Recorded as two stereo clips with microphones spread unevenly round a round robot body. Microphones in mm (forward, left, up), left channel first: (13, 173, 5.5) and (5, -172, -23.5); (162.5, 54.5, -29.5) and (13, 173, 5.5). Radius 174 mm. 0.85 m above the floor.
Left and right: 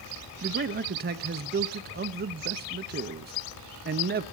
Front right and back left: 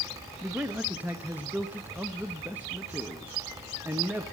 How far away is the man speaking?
About 0.7 m.